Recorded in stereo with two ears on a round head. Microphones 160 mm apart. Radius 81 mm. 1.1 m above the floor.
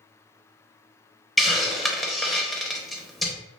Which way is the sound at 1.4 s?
Centre (ahead or behind).